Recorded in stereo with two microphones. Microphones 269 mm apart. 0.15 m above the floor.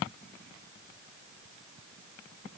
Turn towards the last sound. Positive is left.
No sound to turn to.